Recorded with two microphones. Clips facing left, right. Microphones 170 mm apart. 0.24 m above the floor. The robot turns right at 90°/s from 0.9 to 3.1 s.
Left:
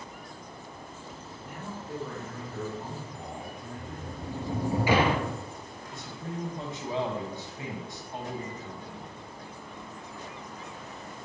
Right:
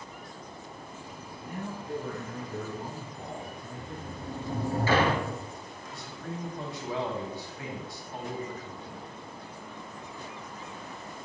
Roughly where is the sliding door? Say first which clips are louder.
Even; centre.